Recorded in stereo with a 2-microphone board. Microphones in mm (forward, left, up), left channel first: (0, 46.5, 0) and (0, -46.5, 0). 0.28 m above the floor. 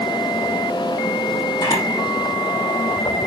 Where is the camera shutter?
55° left (ahead or behind), 6 m.